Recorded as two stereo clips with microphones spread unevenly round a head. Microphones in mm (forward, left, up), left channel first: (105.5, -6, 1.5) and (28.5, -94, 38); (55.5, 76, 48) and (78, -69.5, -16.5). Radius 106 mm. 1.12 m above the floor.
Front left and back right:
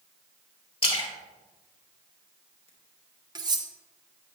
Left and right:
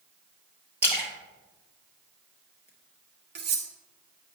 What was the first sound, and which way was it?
A splash, 5° left.